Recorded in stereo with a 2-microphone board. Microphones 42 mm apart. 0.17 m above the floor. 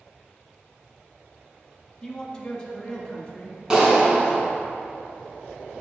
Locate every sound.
2.0 s a man speaking: 15° left (ahead or behind), 1.0 m; by 4.4 s 20° left (ahead or behind), 2.5 m
3.7 s a clap: 15° right (ahead or behind), 1.7 m